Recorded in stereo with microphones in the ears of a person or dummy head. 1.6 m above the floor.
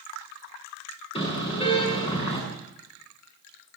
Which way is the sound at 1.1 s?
30° left (ahead or behind).